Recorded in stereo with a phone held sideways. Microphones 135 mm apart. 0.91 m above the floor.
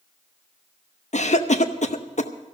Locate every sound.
1.1 s a cough: 55° left (ahead or behind), 0.7 m